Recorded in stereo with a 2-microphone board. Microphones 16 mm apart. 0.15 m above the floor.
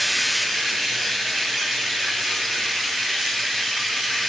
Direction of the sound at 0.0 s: 20° left (ahead or behind).